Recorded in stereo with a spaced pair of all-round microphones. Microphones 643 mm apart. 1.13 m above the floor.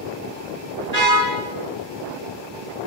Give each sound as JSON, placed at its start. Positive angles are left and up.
{"t": 0.9, "sound": "a car horn", "side_deg": -80, "distance_m": 9.0}